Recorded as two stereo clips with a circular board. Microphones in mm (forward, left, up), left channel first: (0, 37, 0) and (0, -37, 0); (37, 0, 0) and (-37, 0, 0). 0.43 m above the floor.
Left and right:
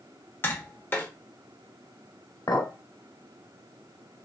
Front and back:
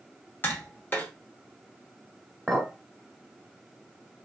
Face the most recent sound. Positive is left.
turn(degrees=90)